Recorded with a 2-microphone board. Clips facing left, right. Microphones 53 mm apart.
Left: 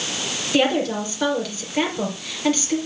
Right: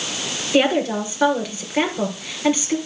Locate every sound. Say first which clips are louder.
0.5 s a woman speaking: right 2 dB; 20° right (ahead or behind), 3 m